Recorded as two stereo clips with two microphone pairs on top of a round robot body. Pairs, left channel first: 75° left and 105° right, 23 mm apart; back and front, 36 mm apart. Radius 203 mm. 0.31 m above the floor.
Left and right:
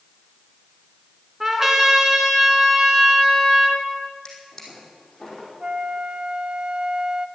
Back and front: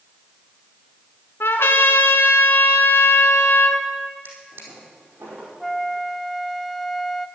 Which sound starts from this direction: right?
A flute, at 5.6 s.